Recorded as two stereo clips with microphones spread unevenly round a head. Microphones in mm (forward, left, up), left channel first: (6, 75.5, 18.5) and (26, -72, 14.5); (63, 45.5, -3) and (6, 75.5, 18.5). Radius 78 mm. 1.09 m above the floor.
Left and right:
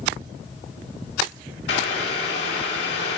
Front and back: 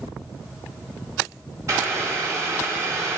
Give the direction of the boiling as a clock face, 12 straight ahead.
9 o'clock.